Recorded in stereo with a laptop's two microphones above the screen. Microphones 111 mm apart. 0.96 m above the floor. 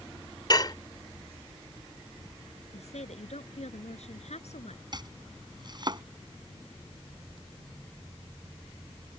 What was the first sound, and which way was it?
Dishes clattering, 40° left (ahead or behind).